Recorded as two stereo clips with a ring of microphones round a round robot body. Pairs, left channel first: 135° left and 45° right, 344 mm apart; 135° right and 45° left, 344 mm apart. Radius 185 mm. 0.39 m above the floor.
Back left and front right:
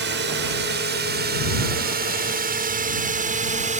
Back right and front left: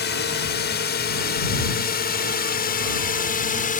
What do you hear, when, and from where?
0.0 s a drone: 90° right; by 3.8 s 95° right